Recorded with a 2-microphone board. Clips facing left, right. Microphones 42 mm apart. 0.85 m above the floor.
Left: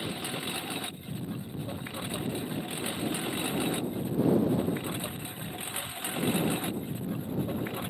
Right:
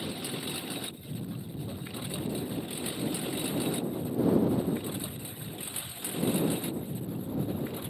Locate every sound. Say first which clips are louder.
0.0 s a lawn mower: left 1 dB; 25° left (ahead or behind); by 7.9 s 45° left (ahead or behind)